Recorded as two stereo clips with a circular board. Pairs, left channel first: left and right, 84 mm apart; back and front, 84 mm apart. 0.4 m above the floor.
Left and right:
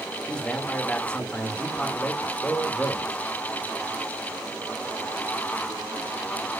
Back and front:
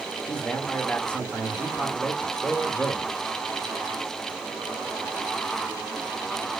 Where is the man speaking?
140° left, 1.4 m.